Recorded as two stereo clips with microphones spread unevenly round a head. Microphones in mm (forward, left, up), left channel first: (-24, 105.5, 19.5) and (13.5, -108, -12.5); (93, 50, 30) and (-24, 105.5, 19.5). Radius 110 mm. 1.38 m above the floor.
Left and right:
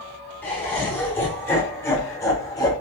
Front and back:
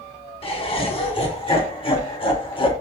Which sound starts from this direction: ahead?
Laughter, at 0.4 s.